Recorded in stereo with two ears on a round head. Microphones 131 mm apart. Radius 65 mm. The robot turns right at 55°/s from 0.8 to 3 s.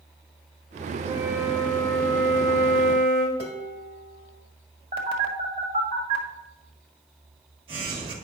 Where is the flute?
25° right, 2.0 m; by 3.3 s 85° left, 2.0 m.